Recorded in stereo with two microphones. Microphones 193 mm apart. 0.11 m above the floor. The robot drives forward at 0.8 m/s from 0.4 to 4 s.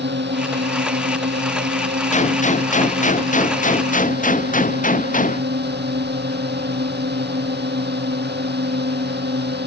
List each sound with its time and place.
0.0 s a drone: 65° right (ahead or behind); by 9.7 s 60° right (ahead or behind)
2.1 s a gunshot: 40° left (ahead or behind); by 5.4 s 45° left (ahead or behind)